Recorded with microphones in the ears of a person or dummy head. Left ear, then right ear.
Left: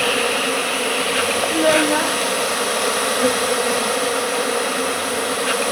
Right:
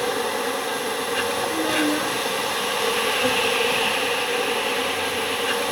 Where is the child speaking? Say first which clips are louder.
Left 9 dB; 80° left, 1.0 m.